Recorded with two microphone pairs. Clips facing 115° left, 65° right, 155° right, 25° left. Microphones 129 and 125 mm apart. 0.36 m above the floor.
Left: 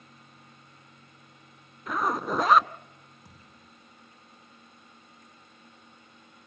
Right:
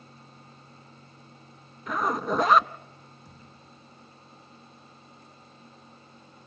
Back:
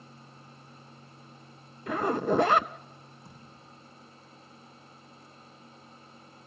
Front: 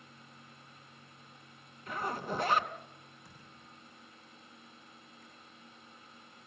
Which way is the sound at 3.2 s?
140° left.